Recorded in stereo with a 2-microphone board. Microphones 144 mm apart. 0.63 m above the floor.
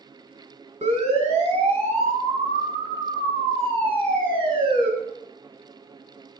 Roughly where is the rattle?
I don't hear a rattle.